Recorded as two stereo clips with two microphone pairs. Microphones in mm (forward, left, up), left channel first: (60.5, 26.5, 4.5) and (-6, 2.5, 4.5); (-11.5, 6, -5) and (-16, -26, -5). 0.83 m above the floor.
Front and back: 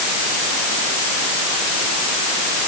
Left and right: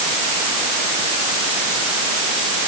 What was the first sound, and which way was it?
Only background noise.